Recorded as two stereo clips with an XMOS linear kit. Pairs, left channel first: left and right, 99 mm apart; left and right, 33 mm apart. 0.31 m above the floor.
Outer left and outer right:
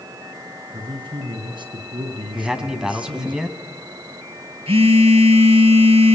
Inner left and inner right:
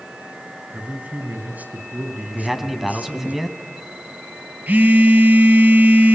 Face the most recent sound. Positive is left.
turn(degrees=-70)  # may be behind; listen again after turning